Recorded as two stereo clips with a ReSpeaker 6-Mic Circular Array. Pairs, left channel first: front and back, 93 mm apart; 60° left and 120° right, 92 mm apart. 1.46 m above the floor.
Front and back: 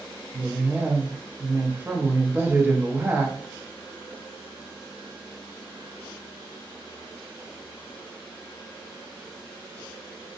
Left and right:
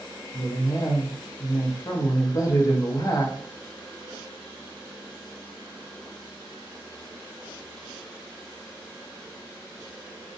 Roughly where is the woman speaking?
Left.